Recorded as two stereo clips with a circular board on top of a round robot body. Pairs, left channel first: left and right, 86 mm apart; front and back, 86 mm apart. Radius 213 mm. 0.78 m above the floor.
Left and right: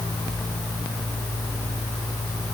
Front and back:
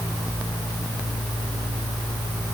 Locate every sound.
Only background noise.